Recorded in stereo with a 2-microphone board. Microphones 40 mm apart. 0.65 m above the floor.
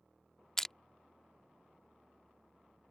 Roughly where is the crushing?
Centre.